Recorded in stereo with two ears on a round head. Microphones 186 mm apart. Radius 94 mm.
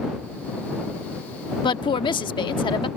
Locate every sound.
1.6 s a woman speaking: 25° left (ahead or behind)